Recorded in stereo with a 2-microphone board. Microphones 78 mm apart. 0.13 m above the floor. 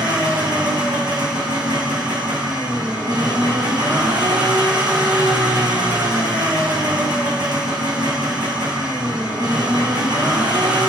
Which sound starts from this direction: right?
An engine running, at 0.0 s.